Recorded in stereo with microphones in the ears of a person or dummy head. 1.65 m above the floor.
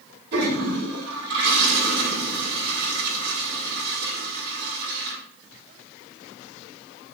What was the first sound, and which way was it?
A toilet flushing, 55° right (ahead or behind).